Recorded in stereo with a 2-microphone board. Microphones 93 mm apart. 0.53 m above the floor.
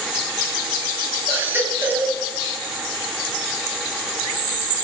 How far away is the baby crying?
About 3 m.